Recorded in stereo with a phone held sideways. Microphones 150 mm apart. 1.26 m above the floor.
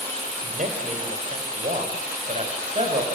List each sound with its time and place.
0.4 s a man speaking: 55° right (ahead or behind), 5 m; by 3.0 s 45° right (ahead or behind), 8 m